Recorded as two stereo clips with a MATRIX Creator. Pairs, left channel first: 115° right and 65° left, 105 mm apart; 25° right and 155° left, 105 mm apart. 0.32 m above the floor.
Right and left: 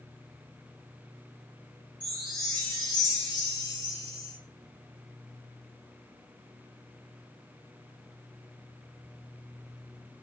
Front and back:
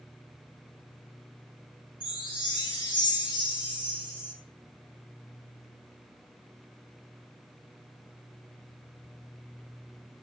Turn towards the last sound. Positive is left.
turn(degrees=25)